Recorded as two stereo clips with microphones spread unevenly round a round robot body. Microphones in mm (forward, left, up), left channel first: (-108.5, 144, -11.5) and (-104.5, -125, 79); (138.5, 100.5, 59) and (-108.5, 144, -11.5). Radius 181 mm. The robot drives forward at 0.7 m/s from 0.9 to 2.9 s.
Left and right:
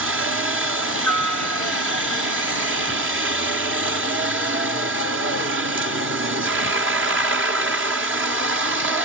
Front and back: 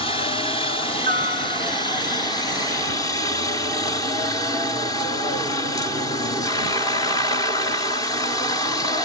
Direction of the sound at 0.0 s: 90° right.